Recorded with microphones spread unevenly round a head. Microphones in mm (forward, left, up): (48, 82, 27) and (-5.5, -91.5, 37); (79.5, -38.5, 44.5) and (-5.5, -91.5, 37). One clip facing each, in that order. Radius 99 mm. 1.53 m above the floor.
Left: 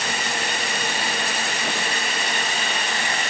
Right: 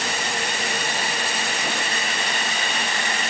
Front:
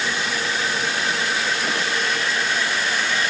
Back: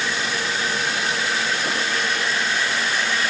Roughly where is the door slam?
I don't hear a door slam.